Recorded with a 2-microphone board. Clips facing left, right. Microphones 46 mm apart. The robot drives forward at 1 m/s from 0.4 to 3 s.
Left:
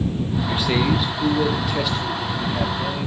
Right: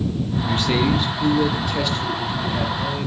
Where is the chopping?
I don't hear chopping.